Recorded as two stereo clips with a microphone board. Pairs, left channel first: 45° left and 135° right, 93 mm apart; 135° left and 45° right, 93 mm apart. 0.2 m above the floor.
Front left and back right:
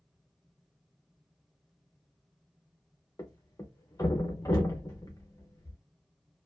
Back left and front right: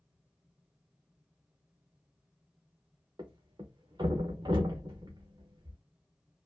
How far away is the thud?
About 1.0 m.